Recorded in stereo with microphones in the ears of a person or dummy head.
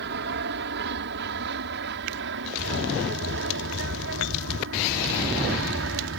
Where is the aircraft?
55° right (ahead or behind); by 6.2 s 60° right (ahead or behind).